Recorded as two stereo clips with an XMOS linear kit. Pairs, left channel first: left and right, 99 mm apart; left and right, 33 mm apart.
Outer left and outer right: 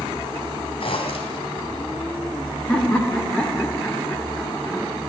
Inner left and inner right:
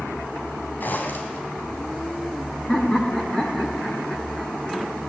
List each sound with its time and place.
0.8 s a zipper: 70° left (ahead or behind), 3 m
2.7 s laughter: 15° left (ahead or behind), 1.4 m